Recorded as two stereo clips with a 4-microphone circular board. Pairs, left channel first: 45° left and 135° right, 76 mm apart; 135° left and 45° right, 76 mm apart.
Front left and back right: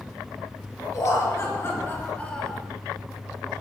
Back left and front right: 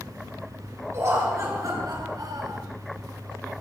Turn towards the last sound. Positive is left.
turn(degrees=-40)